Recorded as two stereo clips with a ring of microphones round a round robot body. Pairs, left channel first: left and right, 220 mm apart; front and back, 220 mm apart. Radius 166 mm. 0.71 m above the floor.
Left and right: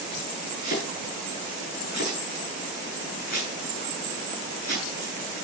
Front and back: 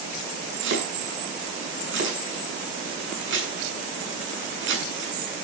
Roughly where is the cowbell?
No cowbell in this recording.